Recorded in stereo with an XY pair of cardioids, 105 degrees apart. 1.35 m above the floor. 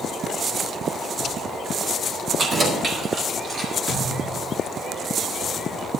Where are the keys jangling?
40° right, 3 m.